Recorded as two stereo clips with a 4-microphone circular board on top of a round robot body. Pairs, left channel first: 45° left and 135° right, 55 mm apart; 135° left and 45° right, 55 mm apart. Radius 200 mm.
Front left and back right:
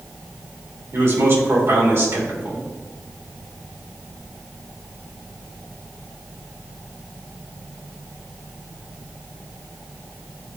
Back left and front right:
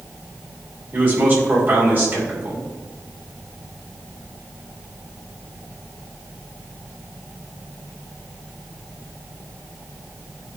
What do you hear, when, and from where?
0.9 s a man speaking: 105° right, 3 m